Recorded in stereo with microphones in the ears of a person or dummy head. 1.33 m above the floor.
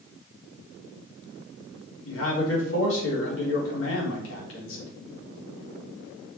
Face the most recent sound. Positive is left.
turn(degrees=75)  # may be behind; listen again after turning